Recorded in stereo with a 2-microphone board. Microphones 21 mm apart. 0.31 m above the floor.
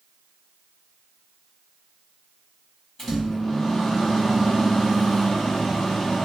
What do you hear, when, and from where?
3.0 s a microwave: 15° left (ahead or behind), 1.1 m